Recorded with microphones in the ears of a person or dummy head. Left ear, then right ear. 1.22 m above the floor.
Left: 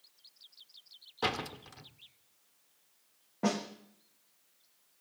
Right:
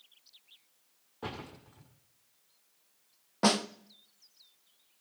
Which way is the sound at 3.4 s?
60° right (ahead or behind).